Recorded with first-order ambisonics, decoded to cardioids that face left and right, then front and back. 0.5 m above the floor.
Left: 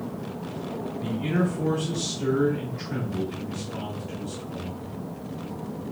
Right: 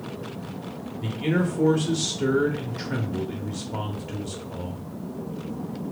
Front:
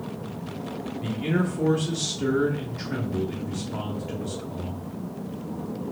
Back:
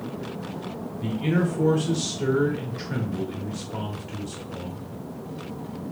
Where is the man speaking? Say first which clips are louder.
Right 3 dB, back 2 dB; 95° right, 0.9 m.